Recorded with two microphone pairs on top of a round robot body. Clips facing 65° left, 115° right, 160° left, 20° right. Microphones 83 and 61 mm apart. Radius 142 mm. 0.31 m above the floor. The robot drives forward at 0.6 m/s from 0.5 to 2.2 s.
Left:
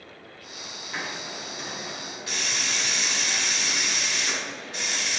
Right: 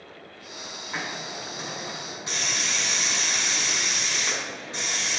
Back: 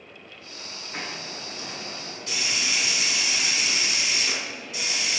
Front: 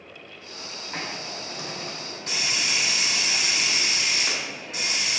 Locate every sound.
0.9 s a hiss: 45° right, 3.5 m; by 5.2 s 55° right, 3 m